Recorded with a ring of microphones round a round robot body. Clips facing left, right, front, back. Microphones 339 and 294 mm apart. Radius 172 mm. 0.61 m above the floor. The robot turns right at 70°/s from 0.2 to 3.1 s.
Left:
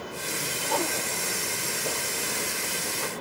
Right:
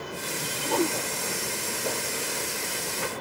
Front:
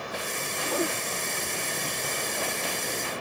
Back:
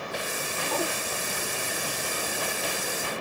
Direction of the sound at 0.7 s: 75° right.